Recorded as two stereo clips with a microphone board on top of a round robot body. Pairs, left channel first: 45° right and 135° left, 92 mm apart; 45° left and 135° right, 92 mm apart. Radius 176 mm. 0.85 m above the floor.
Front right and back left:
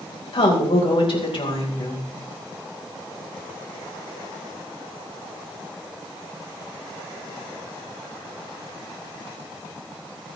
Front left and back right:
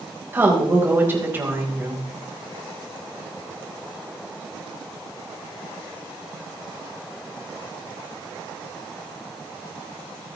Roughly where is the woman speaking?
Right.